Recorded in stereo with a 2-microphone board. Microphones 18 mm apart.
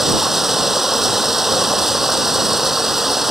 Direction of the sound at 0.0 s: 20° right (ahead or behind).